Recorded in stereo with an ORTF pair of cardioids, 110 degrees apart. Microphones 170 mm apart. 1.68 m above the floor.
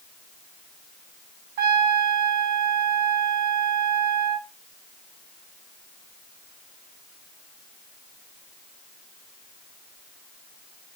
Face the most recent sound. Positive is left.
turn(degrees=-60)